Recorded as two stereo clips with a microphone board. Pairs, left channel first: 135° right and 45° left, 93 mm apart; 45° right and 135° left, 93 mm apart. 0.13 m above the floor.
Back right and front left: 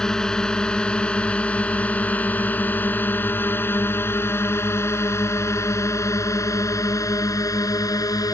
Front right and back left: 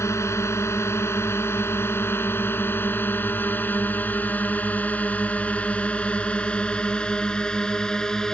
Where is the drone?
60° right; by 8.3 s 125° right.